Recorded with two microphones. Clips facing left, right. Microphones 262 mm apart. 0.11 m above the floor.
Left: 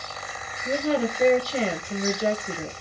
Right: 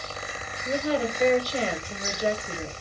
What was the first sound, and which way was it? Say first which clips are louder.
A woman speaking: left 2 dB; 25° left (ahead or behind).